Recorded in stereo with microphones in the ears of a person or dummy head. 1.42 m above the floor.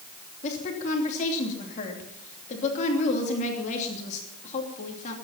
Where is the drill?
I don't hear a drill.